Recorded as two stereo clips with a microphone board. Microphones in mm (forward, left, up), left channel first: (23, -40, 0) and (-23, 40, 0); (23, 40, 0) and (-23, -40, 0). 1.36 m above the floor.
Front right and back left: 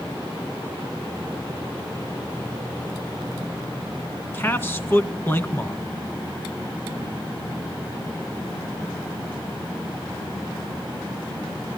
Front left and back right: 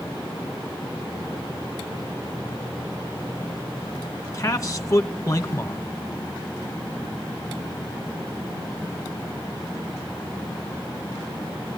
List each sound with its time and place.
4.3 s a man speaking: 5° left, 1.8 m